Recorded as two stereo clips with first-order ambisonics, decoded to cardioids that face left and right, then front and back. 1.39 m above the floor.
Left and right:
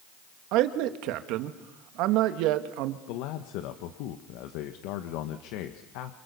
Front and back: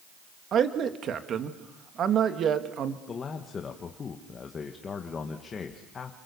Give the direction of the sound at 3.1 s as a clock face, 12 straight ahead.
10 o'clock.